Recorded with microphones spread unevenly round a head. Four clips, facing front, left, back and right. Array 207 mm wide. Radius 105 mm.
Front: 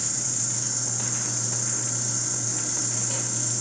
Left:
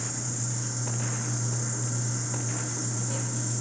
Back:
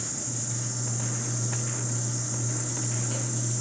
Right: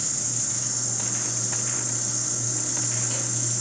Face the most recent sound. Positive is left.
turn(degrees=-30)